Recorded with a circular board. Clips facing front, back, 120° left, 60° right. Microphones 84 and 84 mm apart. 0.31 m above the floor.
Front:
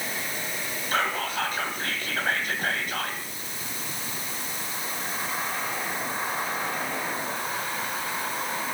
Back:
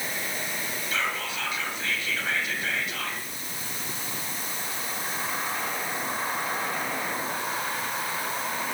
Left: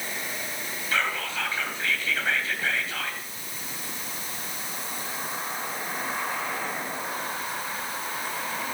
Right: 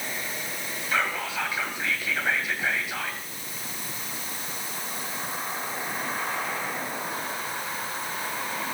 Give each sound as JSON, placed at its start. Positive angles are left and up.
{"t": 0.9, "sound": "whispering", "azimuth_deg": 15, "distance_m": 2.0}